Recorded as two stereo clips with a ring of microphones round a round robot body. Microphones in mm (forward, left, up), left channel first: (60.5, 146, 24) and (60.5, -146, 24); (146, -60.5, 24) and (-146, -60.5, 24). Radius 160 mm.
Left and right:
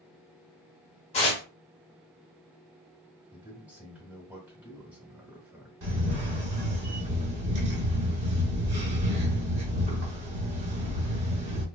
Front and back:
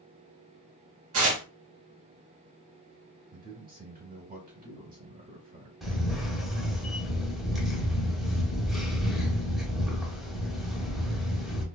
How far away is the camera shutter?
About 1.0 m.